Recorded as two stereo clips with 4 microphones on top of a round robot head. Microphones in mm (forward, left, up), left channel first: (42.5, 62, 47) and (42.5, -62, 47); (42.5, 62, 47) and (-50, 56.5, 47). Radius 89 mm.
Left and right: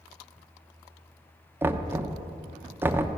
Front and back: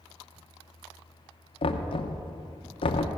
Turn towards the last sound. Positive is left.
turn(degrees=-15)